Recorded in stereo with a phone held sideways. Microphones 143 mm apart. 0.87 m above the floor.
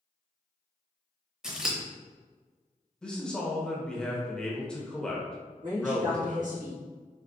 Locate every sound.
1.4 s scissors: 5° right (ahead or behind), 0.8 m
3.0 s a man speaking: 5° left (ahead or behind), 0.6 m
5.6 s a woman speaking: 65° right (ahead or behind), 1.4 m